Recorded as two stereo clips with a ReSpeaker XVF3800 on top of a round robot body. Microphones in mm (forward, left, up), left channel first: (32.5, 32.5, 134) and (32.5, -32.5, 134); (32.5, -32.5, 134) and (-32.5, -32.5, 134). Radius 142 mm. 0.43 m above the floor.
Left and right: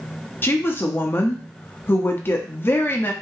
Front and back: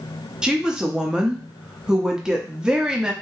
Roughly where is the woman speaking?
Left.